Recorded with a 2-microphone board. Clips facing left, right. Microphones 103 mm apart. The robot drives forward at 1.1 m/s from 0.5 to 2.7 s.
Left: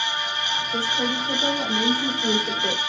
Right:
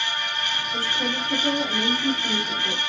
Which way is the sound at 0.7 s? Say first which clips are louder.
Left 3 dB; 70° left (ahead or behind).